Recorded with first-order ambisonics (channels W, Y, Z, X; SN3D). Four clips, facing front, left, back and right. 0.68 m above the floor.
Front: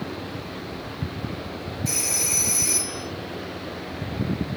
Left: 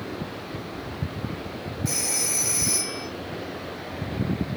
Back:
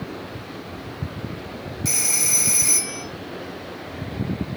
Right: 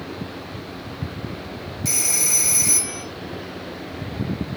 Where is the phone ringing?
140° right, 1.7 m.